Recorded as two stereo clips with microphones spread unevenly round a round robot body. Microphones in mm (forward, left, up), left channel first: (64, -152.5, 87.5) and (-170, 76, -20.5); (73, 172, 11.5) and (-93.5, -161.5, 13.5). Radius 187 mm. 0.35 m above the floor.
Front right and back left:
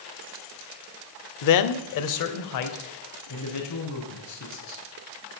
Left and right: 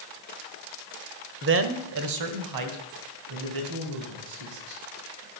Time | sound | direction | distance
1.4 | a man speaking | 70° right | 1.1 m